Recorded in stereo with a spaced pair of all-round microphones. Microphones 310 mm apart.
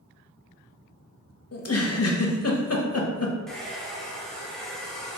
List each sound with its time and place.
1.5 s a giggle: 50° left (ahead or behind), 0.5 m
3.5 s a hair dryer: centre (ahead or behind), 0.7 m